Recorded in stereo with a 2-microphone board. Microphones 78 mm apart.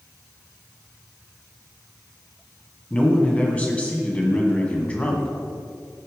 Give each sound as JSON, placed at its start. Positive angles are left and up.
{"t": 2.9, "sound": "a man speaking", "side_deg": 20, "distance_m": 1.6}